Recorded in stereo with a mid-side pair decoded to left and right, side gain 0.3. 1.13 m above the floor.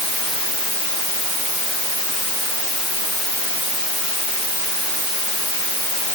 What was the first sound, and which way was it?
Only background noise.